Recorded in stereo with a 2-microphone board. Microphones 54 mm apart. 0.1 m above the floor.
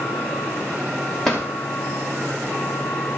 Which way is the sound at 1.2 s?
5° left (ahead or behind).